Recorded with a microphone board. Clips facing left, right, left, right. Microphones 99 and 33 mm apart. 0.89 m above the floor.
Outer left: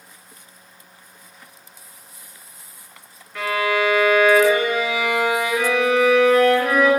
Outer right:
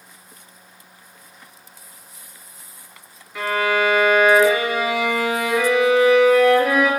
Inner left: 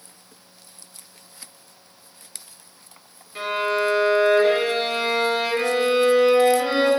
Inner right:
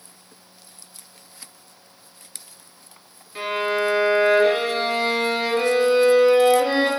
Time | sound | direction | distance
3.4 | a violin | 5° right (ahead or behind) | 1.6 m